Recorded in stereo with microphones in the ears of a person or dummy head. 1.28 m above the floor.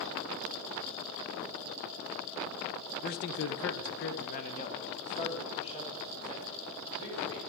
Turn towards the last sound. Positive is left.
turn(degrees=25)  # may be behind; listen again after turning